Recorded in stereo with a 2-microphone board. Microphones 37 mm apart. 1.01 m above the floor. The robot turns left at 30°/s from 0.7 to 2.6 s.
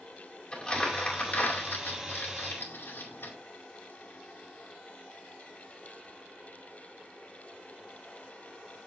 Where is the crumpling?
25° left (ahead or behind), 2.5 m; by 3.3 s 85° left, 2.5 m.